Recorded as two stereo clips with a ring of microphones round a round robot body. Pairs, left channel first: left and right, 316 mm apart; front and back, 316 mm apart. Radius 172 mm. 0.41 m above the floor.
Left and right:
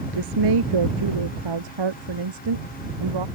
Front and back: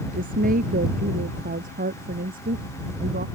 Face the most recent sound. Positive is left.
turn(degrees=-110)